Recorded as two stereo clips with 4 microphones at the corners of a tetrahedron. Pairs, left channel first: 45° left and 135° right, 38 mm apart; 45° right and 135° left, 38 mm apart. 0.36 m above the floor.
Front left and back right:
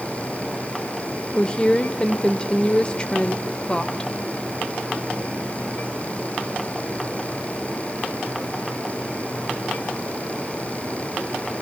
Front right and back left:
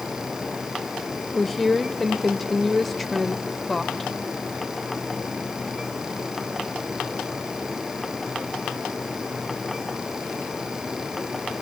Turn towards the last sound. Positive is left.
turn(degrees=35)